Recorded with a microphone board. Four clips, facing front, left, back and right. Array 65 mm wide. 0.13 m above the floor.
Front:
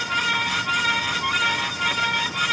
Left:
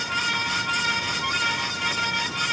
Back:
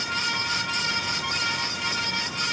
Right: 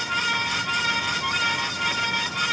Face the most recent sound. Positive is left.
No sound to turn to.